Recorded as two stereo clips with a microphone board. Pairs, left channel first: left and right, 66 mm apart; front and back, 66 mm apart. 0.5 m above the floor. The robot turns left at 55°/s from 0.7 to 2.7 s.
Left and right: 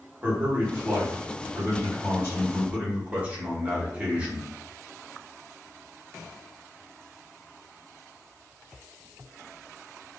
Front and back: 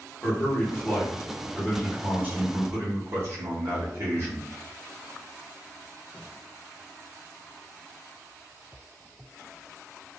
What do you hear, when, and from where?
0.2 s a man speaking: 40° right, 1.5 m; by 4.5 s 150° right, 1.5 m